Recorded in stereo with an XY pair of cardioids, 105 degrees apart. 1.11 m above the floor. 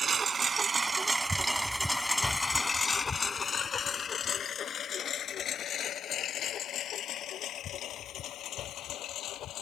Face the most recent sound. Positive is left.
turn(degrees=75)